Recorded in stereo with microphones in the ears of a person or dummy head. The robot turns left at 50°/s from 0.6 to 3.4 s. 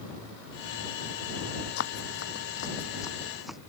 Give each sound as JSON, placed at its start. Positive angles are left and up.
{"t": 1.8, "sound": "running footsteps", "side_deg": 60}